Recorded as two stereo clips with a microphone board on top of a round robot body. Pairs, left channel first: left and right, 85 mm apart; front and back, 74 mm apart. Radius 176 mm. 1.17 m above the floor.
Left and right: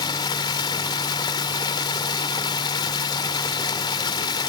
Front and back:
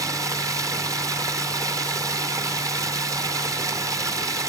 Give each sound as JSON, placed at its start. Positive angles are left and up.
{"t": 0.0, "sound": "running water", "azimuth_deg": 130, "distance_m": 0.8}